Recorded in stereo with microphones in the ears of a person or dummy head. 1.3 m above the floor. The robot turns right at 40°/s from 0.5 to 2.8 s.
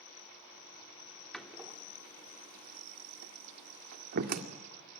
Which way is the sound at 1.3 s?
Centre (ahead or behind).